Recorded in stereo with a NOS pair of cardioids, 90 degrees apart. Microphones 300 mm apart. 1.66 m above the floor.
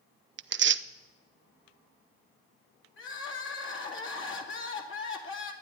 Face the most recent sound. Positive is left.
turn(degrees=45)